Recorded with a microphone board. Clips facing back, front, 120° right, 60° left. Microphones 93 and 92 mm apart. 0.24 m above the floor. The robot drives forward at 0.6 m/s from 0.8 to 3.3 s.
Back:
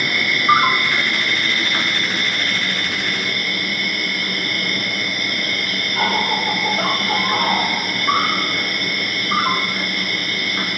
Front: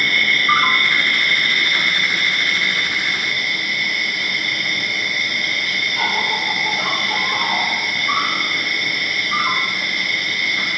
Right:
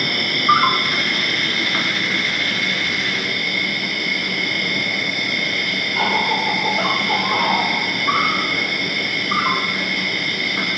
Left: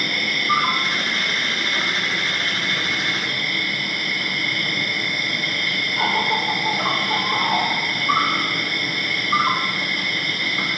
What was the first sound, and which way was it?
An insect, 110° right.